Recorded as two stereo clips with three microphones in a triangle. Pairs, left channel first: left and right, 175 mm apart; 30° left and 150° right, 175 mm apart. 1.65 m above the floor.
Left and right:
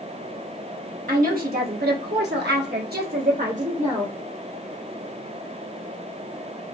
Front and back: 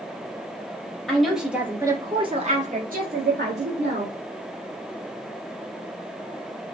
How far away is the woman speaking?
About 1.1 m.